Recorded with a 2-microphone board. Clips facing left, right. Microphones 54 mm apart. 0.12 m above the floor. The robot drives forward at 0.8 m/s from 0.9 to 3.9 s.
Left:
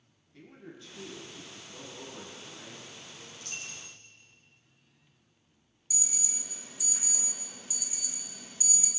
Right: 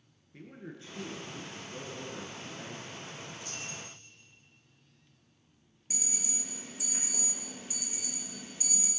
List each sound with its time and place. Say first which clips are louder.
0.3 s a man speaking: right 3 dB; 30° right (ahead or behind), 2.0 m
3.3 s a dropped coin: right 2 dB; 70° left (ahead or behind), 1.2 m; by 4.0 s 60° left (ahead or behind), 1.3 m
5.9 s an alarm: right 3 dB; 45° right (ahead or behind), 1.4 m